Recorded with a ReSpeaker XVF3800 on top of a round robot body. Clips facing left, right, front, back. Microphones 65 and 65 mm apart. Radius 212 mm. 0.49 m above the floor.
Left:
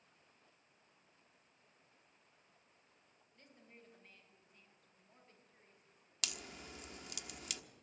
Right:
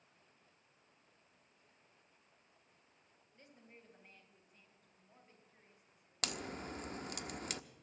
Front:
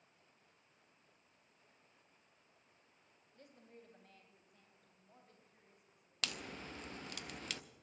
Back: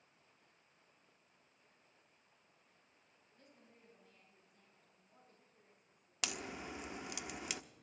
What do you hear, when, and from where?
3.3 s a woman speaking: 10° right, 3.5 m
6.2 s a crack: 110° right, 0.9 m